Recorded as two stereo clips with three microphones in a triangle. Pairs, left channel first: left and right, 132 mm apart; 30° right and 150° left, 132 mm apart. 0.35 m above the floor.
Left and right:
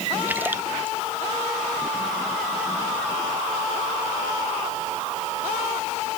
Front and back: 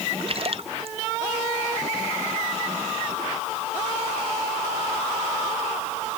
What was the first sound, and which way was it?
A splash, 165° right.